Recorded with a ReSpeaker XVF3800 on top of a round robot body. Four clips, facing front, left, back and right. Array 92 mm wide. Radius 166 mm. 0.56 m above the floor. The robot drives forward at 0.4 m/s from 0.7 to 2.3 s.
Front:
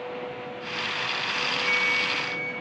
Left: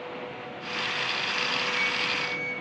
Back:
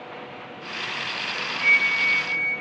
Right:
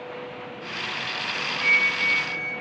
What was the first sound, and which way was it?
A flute, 140° right.